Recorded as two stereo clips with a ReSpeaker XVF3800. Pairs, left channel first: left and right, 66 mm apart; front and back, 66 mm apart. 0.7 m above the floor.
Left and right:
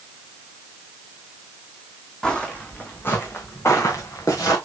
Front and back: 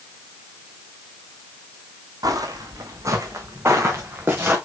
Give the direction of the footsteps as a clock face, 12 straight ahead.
6 o'clock.